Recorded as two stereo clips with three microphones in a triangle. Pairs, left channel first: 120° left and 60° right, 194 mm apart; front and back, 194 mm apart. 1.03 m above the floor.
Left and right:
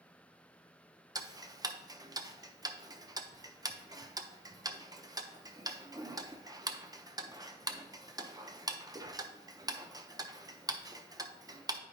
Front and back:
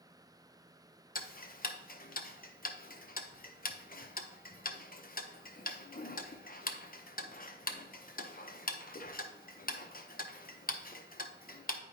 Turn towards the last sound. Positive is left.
turn(degrees=5)